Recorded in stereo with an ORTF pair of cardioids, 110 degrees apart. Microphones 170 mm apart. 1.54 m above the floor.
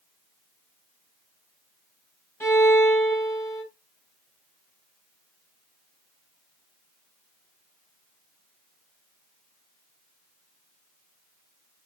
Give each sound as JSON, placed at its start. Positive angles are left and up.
{"t": 2.4, "sound": "a violin", "azimuth_deg": 15, "distance_m": 1.3}